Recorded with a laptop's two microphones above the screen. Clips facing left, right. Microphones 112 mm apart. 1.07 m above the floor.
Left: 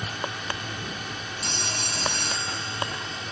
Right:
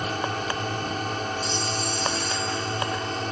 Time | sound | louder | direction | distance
0.0 | a drone | right 6 dB | 45° right (ahead or behind) | ?
1.4 | a phone ringing | right 5 dB | 80° left | ?